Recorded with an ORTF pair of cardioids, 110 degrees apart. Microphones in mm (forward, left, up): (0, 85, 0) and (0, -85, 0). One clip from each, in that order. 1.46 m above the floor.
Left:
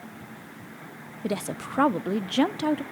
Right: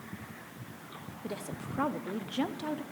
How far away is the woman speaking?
About 0.6 m.